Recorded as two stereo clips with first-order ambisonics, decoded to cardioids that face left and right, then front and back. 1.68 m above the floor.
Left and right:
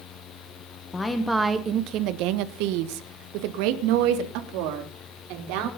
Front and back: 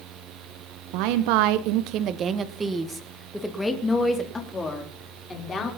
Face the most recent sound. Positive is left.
turn(degrees=-70)